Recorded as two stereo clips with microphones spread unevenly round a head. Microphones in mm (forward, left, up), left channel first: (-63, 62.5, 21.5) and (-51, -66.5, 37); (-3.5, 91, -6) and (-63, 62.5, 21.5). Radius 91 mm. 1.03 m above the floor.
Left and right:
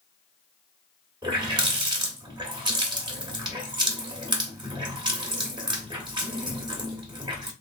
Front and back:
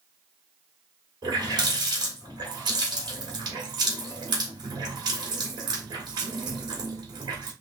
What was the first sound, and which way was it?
A running tap, 140° right.